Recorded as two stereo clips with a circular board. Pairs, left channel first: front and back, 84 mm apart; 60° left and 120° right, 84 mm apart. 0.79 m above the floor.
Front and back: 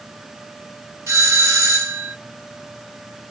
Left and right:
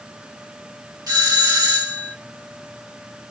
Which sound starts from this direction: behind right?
A doorbell, at 1.1 s.